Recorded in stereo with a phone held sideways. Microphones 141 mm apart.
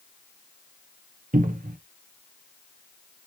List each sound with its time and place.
1.3 s a cupboard door: 75° right (ahead or behind), 0.7 m